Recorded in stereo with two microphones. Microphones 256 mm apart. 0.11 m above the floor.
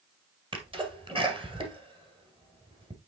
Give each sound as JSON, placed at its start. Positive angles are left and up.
{"t": 0.5, "sound": "a sneeze", "side_deg": -20, "distance_m": 1.9}